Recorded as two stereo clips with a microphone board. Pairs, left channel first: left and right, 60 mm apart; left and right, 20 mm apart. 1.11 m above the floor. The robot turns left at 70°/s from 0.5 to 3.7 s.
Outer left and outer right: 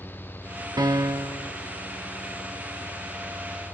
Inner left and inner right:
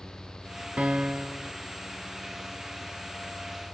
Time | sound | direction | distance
0.8 | a piano | 95° right | 0.5 m